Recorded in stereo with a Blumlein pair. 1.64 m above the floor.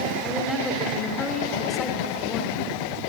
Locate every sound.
0.2 s a woman speaking: 10° left, 4.5 m